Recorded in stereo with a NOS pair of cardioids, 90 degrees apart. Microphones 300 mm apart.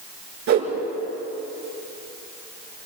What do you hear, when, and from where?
0.5 s a whoosh: 65° right, 5 m